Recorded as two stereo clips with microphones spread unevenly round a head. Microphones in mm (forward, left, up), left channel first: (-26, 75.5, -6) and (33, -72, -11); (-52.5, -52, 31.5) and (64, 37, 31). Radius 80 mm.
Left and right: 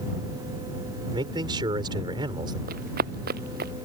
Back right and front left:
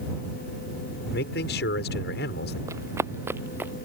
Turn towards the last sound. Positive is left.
turn(degrees=-40)